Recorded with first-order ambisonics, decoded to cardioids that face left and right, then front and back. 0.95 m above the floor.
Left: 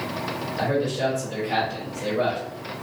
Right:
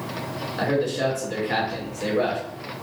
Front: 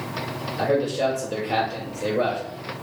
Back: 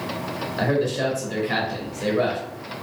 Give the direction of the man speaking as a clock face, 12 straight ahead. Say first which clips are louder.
Right 1 dB, front 1 dB; 5 o'clock.